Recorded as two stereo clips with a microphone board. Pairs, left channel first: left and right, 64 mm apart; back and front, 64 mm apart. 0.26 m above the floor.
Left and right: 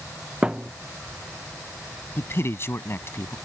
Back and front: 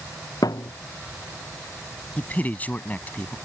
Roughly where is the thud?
Behind.